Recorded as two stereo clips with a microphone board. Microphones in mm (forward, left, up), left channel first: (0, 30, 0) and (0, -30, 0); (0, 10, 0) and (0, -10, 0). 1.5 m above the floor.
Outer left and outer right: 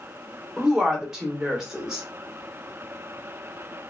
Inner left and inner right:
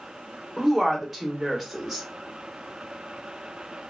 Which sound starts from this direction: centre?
A woman speaking, at 0.6 s.